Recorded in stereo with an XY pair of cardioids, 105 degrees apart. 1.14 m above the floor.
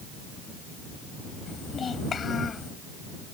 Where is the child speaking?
45° left.